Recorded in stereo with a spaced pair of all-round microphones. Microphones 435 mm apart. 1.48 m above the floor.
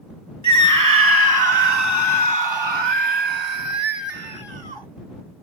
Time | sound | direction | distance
0.4 | a scream | 40° right (ahead or behind) | ?